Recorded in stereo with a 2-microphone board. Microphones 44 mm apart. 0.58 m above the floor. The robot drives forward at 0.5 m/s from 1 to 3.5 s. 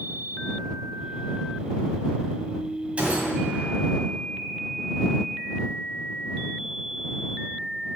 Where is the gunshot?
30° right (ahead or behind), 2.5 m; by 3.9 s 35° right (ahead or behind), 2 m.